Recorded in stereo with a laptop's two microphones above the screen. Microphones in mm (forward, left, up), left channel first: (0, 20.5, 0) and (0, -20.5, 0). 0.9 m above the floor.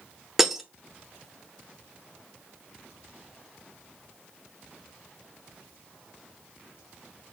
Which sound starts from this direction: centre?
Breaking glass, at 0.4 s.